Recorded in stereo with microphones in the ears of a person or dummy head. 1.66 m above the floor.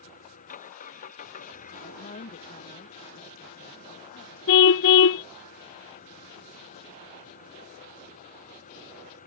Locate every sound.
0.0 s an engine running: 45° left (ahead or behind)
1.8 s a woman speaking: 35° left (ahead or behind)
4.5 s a car horn: 60° left (ahead or behind)